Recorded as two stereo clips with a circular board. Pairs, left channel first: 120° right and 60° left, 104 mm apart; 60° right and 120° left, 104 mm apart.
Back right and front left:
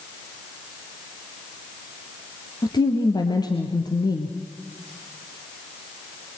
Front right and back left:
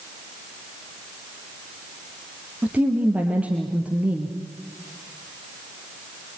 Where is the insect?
No insect in this recording.